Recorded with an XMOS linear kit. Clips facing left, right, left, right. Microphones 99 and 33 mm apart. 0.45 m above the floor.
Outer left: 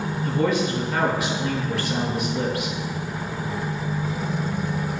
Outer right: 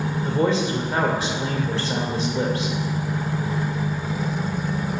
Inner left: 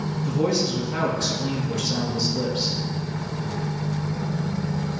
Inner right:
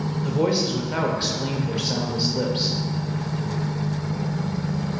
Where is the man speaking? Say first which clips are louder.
Outer right 1 dB, inner right 1 dB; 30° right (ahead or behind), 1.3 m.